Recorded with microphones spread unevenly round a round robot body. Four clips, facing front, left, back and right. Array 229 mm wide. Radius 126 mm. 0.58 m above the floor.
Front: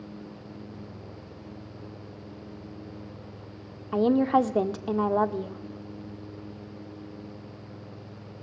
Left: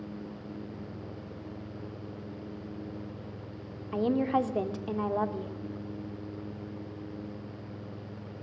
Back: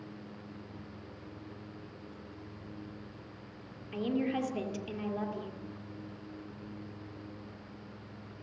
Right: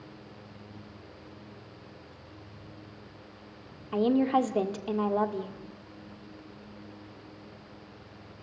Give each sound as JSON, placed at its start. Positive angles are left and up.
{"t": 3.9, "sound": "a woman speaking", "azimuth_deg": -15, "distance_m": 1.6}